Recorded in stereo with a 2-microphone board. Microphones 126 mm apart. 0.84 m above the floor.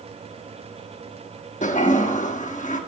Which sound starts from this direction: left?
A toilet flushing, at 1.6 s.